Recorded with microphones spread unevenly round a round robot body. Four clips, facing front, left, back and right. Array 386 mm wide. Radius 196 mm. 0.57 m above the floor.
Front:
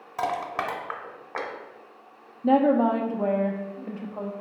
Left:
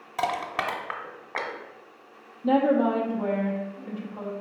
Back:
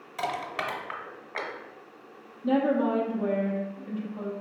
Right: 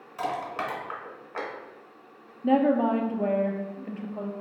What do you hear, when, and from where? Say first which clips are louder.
0.2 s crushing: left 3 dB, front 4 dB; 45° left, 0.8 m
2.4 s a woman speaking: left 1 dB, front 4 dB; 10° right, 0.7 m